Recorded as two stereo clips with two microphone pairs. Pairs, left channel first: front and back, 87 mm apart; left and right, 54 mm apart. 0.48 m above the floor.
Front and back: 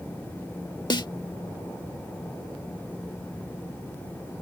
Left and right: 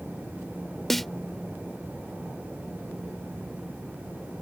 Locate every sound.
0.9 s a snare drum: straight ahead